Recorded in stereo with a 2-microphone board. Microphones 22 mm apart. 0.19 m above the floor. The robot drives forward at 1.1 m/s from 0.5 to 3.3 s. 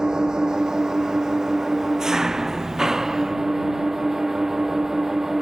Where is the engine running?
30° right (ahead or behind); by 5.4 s 15° right (ahead or behind).